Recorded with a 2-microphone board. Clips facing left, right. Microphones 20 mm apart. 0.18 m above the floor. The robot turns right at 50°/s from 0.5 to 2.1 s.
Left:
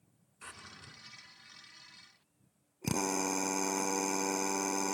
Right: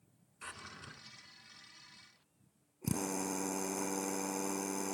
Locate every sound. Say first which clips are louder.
0.4 s a drawer: right 2 dB; 10° right (ahead or behind), 1.0 m; by 1.0 s 30° right (ahead or behind), 1.0 m
2.8 s a drill: left 4 dB; 45° left (ahead or behind), 0.9 m